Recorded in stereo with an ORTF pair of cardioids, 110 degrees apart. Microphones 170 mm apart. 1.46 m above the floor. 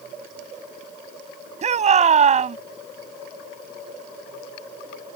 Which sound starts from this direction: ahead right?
A shout, at 1.6 s.